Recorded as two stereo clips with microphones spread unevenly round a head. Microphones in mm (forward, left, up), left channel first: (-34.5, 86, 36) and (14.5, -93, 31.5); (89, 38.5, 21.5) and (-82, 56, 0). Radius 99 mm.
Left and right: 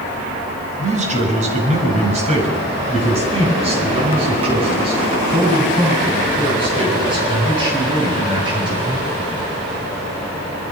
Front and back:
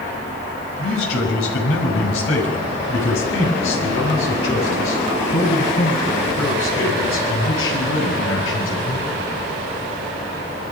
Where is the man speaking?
20° right, 6 m; by 9.3 s 5° right, 10 m.